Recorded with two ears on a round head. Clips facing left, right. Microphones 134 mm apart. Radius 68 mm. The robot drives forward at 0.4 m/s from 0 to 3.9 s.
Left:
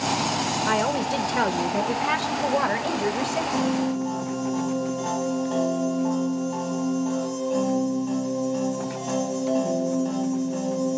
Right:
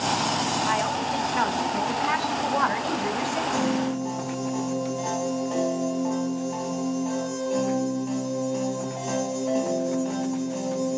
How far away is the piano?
About 1.2 m.